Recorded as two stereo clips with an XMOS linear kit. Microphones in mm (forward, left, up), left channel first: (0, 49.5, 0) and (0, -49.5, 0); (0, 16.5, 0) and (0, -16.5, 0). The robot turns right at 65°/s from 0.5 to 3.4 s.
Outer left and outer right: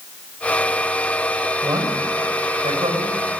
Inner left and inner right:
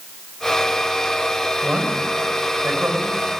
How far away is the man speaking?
About 6.5 m.